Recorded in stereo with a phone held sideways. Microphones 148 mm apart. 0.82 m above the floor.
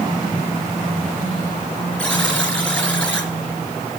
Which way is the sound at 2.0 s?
5° left (ahead or behind).